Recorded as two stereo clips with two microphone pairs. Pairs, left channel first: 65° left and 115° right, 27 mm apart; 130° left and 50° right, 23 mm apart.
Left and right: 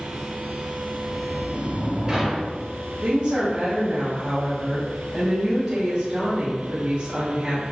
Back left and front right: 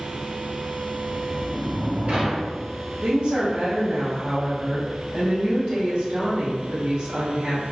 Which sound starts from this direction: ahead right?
A sliding door, at 1.0 s.